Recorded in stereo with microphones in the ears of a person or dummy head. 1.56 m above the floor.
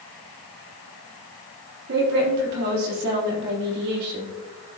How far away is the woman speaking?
About 3.5 m.